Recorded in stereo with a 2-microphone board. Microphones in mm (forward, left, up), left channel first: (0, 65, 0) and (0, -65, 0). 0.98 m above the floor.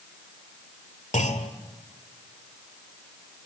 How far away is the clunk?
About 1.8 m.